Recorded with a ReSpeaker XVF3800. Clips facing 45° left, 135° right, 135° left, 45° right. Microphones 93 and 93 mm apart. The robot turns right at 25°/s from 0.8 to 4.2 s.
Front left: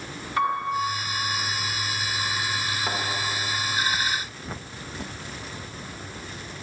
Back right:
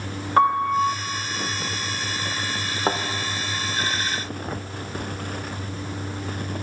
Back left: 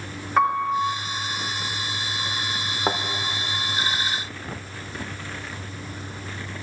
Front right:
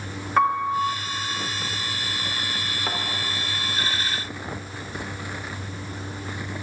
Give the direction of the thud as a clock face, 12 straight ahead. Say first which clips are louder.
Back right 9 dB, back left 6 dB; 6 o'clock.